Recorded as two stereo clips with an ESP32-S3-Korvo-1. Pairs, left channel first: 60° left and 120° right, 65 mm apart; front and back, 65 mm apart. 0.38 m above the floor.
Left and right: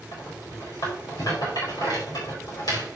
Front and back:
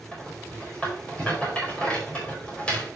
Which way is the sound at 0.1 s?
70° left.